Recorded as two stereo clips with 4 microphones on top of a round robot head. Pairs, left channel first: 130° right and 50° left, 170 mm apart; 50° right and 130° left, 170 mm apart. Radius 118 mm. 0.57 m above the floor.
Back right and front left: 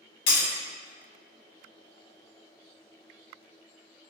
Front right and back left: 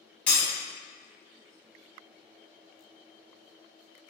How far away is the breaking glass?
About 1.3 m.